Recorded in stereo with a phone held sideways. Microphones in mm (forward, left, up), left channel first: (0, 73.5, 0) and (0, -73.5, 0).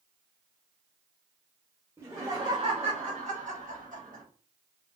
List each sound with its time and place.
2.0 s laughter: 15° right (ahead or behind), 1.3 m; by 4.2 s 85° right, 1.6 m